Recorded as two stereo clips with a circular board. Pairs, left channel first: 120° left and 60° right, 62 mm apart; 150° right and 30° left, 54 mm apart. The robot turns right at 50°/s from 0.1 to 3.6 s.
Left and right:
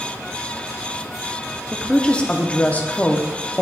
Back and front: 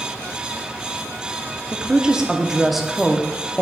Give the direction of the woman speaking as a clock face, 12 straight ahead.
10 o'clock.